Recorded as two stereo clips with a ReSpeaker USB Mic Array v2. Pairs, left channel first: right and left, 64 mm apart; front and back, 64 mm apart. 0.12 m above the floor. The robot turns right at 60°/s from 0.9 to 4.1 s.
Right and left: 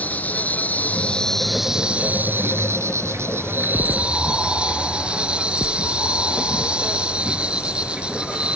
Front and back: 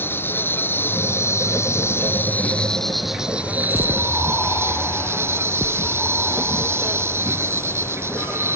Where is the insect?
35° right; by 8.6 s 155° left.